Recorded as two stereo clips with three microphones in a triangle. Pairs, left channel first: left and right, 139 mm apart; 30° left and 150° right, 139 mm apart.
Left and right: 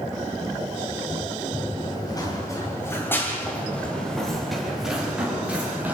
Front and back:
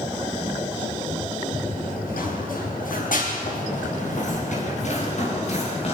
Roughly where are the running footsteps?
Ahead left.